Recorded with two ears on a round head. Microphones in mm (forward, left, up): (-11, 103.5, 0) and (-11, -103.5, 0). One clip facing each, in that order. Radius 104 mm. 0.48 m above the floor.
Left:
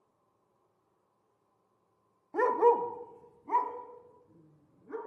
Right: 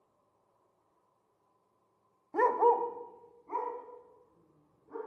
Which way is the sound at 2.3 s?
Centre (ahead or behind).